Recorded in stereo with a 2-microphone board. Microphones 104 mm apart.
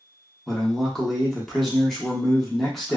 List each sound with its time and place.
0.5 s a man speaking: 5° left (ahead or behind), 0.9 m